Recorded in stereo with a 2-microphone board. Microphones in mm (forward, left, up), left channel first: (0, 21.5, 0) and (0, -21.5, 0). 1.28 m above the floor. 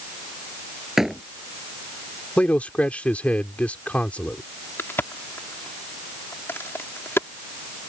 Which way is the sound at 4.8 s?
65° left (ahead or behind).